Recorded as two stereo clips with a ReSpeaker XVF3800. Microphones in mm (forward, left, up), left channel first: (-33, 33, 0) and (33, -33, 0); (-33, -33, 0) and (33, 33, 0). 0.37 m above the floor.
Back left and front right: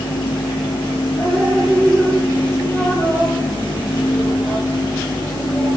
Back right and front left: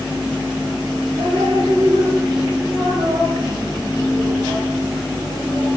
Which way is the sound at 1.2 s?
75° left.